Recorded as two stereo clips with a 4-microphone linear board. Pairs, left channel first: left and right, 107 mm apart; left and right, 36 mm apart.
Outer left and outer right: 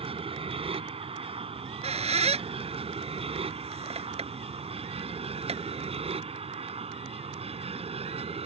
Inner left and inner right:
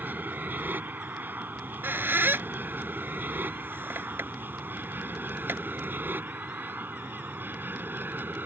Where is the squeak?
70° right (ahead or behind).